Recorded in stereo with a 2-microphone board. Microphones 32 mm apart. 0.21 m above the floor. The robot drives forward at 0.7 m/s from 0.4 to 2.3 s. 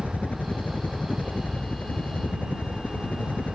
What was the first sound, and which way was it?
A helicopter, 55° left (ahead or behind).